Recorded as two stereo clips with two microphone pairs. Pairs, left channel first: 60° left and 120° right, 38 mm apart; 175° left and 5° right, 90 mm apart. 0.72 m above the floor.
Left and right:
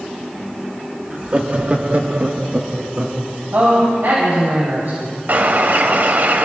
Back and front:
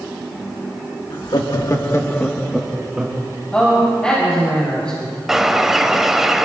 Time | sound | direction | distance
1.1 | laughter | 175° right | 1.5 m
3.5 | a man speaking | 105° right | 3.5 m
5.3 | a bird | 85° right | 0.9 m